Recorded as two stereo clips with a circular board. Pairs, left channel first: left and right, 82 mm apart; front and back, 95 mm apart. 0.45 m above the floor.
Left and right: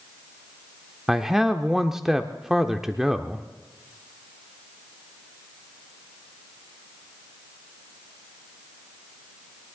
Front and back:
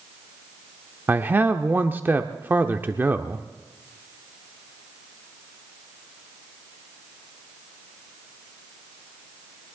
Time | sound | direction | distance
1.1 | a man speaking | 165° right | 0.7 m